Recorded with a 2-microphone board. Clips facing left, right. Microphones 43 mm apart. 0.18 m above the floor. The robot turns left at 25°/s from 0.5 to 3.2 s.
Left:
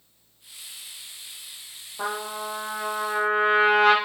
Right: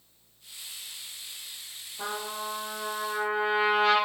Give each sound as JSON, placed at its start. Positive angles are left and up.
{"t": 2.0, "sound": "a trumpet", "azimuth_deg": 130, "distance_m": 4.0}